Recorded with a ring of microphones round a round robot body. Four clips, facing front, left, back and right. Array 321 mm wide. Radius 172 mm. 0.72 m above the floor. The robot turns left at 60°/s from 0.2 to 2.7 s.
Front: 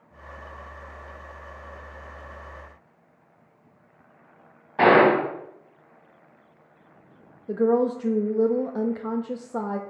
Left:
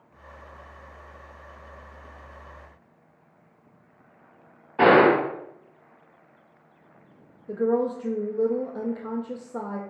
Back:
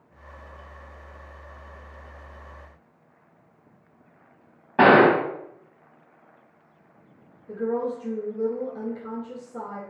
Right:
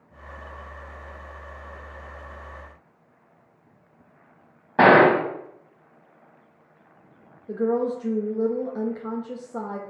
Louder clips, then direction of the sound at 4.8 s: Right 2 dB, back 1 dB; 125° right.